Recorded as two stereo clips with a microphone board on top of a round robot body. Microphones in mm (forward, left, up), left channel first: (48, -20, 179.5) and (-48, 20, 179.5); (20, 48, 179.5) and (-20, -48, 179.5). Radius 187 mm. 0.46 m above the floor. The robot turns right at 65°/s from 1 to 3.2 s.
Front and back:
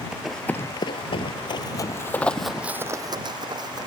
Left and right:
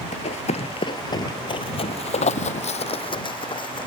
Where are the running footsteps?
75° left; by 3.9 s 105° left.